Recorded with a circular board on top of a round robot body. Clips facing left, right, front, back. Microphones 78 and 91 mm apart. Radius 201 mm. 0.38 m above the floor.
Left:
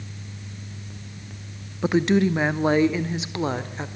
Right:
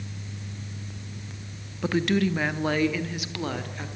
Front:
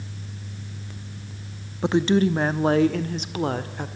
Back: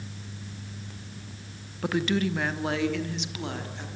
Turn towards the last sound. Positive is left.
turn(degrees=30)